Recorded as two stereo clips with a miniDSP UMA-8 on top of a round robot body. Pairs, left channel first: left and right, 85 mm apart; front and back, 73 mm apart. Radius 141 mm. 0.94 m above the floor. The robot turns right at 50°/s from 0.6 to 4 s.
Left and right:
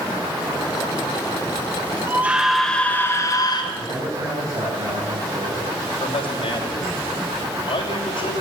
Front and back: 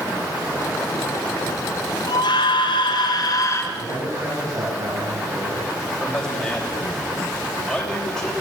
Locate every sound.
2.1 s a scream: 25° right, 4 m; by 3.6 s 55° left, 4 m
3.7 s a man speaking: 155° right, 9.5 m; by 5.9 s 140° right, 9.5 m
6.0 s a man speaking: 85° left, 6 m